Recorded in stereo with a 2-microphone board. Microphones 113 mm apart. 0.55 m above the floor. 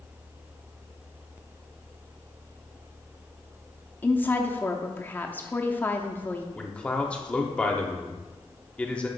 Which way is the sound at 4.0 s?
15° left (ahead or behind).